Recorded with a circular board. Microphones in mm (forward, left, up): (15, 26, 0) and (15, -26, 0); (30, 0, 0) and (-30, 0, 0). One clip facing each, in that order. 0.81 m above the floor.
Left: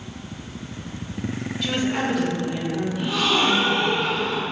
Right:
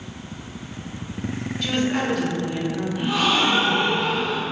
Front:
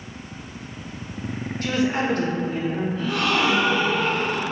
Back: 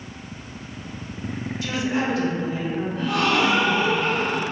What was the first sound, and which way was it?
A woman speaking, straight ahead.